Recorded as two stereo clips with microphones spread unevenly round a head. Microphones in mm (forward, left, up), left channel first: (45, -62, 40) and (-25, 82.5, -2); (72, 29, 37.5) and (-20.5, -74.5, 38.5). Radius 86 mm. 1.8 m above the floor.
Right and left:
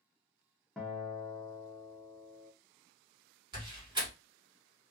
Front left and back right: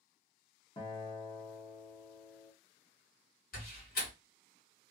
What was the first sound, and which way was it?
A guitar, 5° left.